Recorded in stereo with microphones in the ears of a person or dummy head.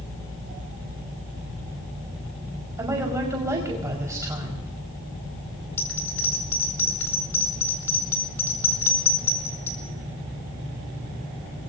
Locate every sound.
2.8 s a woman speaking: 15° right (ahead or behind), 4 m
5.8 s a bell: 15° left (ahead or behind), 3 m